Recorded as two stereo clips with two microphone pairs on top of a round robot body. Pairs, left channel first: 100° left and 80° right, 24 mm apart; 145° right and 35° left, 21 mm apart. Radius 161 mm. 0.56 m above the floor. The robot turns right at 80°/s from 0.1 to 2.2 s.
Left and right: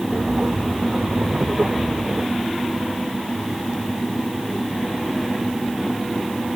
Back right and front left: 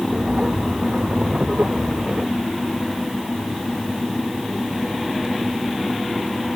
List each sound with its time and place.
Only background noise.